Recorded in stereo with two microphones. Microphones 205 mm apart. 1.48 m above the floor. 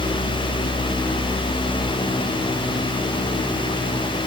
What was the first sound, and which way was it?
Only background noise.